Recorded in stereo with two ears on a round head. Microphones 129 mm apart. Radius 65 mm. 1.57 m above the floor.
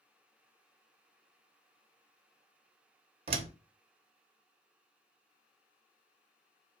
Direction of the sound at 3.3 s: 45° right (ahead or behind).